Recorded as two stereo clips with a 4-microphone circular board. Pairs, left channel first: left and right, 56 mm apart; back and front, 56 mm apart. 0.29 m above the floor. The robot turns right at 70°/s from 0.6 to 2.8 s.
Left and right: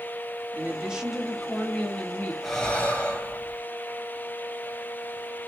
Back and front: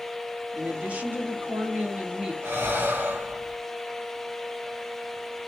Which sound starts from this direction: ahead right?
A woman speaking, at 0.5 s.